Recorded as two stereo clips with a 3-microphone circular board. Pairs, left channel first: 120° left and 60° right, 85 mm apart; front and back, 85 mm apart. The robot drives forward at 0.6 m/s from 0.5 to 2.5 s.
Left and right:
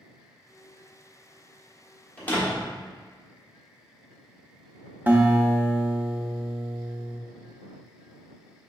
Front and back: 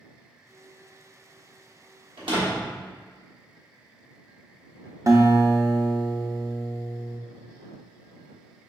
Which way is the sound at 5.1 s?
130° right.